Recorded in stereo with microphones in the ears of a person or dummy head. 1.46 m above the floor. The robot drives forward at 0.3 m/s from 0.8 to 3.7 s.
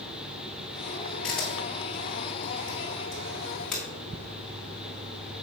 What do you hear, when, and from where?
1.2 s a camera shutter: 10° left (ahead or behind), 3.5 m; by 3.8 s 5° left (ahead or behind), 4.5 m